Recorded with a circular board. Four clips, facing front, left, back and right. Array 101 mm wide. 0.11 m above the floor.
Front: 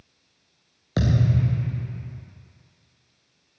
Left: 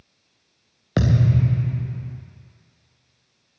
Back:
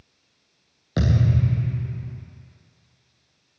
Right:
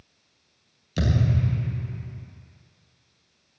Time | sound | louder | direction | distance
1.0 | a thud | left 5 dB, even | 80° left | 3 m